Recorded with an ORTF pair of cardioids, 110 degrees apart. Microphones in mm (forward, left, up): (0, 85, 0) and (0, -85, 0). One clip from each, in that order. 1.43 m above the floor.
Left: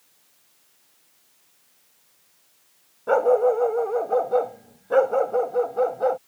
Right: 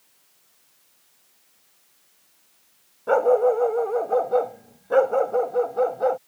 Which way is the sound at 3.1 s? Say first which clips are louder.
Even; straight ahead.